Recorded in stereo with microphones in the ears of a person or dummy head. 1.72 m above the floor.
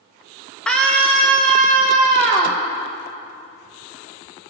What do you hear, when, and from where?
0.7 s a scream: 5° left (ahead or behind), 2 m; by 2.6 s centre (ahead or behind), 4.5 m